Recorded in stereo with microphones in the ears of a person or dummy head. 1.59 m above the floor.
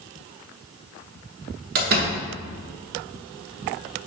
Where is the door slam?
50° right (ahead or behind), 1.1 m.